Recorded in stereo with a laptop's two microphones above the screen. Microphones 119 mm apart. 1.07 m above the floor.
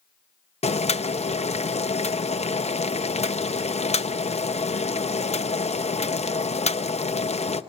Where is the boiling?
65° left (ahead or behind), 0.6 m.